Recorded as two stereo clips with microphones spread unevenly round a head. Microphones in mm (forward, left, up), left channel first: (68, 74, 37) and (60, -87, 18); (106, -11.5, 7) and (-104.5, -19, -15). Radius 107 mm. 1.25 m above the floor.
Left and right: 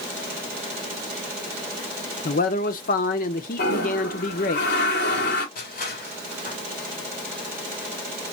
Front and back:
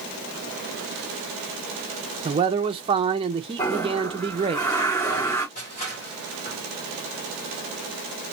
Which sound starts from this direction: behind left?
A man speaking, at 2.2 s.